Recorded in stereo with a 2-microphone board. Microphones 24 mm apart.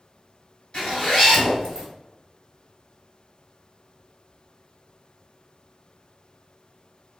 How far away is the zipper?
About 1.5 m.